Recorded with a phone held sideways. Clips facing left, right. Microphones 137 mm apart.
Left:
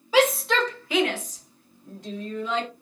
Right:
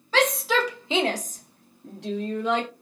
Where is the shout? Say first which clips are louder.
Left 2 dB; 10° left (ahead or behind), 0.8 m; by 2.7 s 75° right (ahead or behind), 1.0 m.